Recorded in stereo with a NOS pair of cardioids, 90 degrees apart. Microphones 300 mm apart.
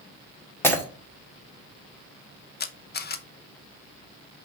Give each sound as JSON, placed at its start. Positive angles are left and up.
{"t": 0.6, "sound": "breaking glass", "azimuth_deg": 10, "distance_m": 1.7}
{"t": 2.6, "sound": "a camera shutter", "azimuth_deg": 35, "distance_m": 0.8}